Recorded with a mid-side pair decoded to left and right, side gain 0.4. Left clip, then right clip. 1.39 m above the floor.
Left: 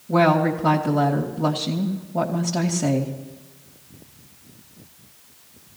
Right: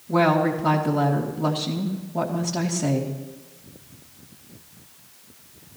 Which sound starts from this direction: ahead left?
A woman speaking, at 0.1 s.